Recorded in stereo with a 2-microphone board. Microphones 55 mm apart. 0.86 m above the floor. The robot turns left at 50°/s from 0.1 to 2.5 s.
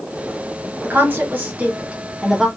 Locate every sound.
0.8 s a woman speaking: 40° right (ahead or behind), 1.0 m; by 2.5 s 5° right (ahead or behind), 1.0 m